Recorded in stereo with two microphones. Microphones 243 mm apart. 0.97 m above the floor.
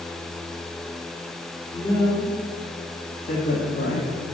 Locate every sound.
1.7 s a woman speaking: 20° left (ahead or behind), 3 m; by 4.1 s 55° left (ahead or behind), 1.4 m